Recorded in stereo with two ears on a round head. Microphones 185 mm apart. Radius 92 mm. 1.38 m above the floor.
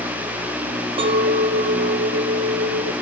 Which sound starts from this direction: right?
A clink, at 1.0 s.